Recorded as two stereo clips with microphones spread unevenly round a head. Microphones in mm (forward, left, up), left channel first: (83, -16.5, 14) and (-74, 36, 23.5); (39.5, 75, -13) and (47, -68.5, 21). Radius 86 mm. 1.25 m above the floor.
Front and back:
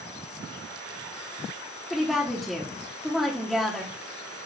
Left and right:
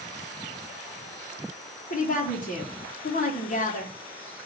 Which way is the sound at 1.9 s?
70° left.